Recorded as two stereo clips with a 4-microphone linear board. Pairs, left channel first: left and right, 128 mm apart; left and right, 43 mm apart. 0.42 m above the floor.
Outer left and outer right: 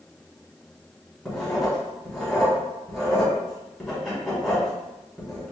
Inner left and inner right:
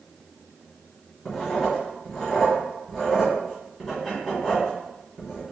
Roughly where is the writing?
Centre.